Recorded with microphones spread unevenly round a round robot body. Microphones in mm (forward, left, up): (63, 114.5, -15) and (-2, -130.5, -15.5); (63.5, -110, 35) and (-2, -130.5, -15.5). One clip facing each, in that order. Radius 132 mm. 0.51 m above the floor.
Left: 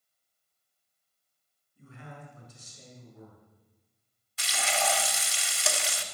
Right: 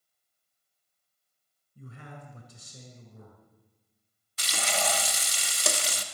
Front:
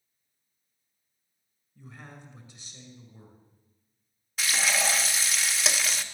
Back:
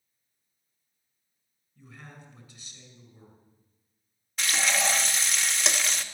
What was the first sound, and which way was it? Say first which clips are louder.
A man speaking: right 1 dB, front 1 dB; 50° right.